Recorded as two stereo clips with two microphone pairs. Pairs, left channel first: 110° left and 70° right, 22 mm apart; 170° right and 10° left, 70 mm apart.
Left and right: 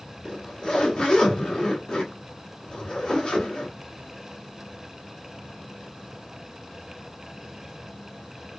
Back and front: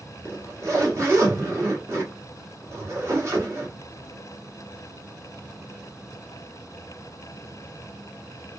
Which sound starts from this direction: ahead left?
A zipper, at 0.2 s.